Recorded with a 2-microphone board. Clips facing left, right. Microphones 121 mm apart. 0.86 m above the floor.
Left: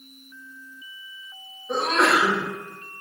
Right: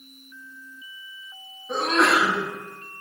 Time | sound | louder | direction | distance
1.7 | a sneeze | even | centre (ahead or behind) | 1.6 m